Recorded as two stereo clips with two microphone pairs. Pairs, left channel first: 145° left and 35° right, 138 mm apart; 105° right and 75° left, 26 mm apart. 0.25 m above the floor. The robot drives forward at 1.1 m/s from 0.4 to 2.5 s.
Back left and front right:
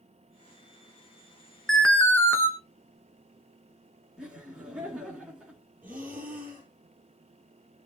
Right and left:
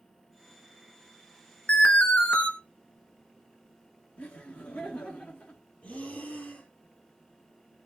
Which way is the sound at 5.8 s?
115° right.